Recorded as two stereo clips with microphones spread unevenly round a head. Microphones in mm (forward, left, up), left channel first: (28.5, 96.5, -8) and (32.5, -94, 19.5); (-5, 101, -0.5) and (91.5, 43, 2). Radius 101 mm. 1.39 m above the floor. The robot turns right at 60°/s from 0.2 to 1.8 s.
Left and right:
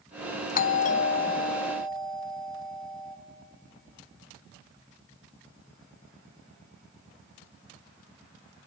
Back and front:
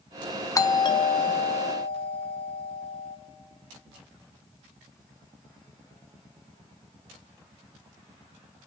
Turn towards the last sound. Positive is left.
turn(degrees=170)